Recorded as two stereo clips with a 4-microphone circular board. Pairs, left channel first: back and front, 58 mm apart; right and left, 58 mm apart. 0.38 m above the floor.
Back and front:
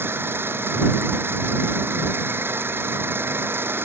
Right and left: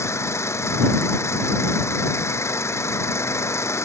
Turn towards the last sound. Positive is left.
turn(degrees=-50)